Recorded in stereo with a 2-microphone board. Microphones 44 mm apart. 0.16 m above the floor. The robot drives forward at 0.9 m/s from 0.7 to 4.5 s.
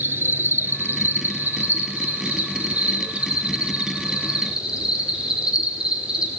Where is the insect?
55° right (ahead or behind), 1.9 m; by 6.4 s 20° right (ahead or behind), 4.5 m.